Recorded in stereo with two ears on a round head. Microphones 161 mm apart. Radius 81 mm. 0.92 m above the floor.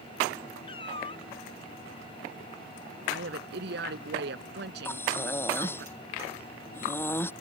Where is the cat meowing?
30° left (ahead or behind).